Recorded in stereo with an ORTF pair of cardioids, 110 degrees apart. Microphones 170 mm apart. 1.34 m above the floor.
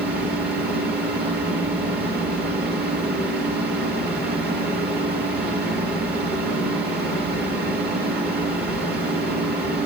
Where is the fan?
70° right, 2 m.